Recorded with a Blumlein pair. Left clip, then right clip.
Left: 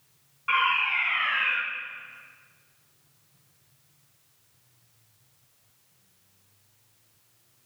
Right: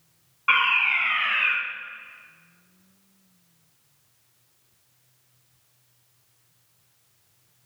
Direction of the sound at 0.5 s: 70° right.